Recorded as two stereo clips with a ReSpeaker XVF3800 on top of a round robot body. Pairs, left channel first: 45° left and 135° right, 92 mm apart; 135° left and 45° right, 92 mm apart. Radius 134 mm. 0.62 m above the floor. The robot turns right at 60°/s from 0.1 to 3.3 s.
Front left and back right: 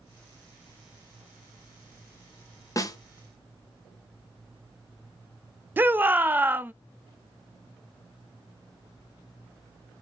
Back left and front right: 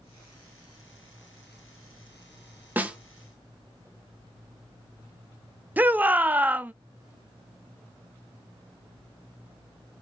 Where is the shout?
95° right, 0.5 m.